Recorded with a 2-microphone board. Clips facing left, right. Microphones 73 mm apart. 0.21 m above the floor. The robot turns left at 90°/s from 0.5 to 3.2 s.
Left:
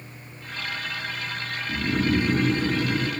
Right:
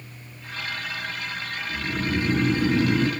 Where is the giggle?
I don't hear a giggle.